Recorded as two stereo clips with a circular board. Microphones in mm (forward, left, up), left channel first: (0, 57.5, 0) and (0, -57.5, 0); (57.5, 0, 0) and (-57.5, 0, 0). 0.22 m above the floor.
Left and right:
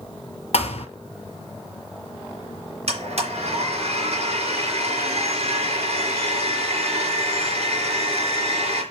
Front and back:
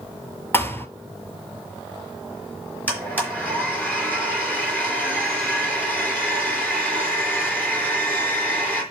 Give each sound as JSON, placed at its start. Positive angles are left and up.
{"t": 0.5, "sound": "a thud", "azimuth_deg": 70, "distance_m": 0.8}
{"t": 2.9, "sound": "a blender", "azimuth_deg": -75, "distance_m": 4.0}